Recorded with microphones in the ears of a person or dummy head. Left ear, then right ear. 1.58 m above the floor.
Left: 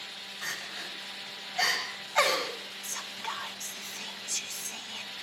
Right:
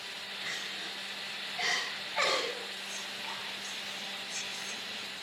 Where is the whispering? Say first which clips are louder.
Left 2 dB; 45° left (ahead or behind), 2.5 m.